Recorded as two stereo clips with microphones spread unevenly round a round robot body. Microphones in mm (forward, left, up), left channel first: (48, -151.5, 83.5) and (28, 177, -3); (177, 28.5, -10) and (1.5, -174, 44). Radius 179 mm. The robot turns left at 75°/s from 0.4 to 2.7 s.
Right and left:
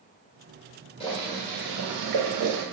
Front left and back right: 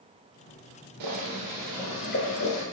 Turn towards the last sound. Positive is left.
turn(degrees=70)